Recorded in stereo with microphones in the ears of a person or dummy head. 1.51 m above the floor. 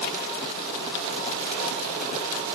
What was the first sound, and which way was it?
Only background noise.